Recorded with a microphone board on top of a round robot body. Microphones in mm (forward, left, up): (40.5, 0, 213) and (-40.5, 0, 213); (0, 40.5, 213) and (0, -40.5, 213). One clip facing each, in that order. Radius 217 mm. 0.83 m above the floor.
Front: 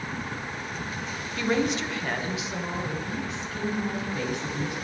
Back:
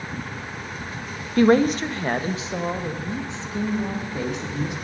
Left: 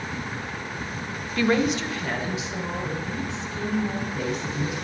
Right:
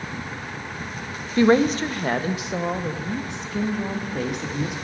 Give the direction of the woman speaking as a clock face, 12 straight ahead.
5 o'clock.